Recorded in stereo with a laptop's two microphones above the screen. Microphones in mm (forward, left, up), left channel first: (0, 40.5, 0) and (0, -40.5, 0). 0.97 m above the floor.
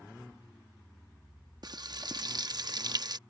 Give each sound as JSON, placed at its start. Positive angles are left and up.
{"t": 1.6, "sound": "frying", "side_deg": -55}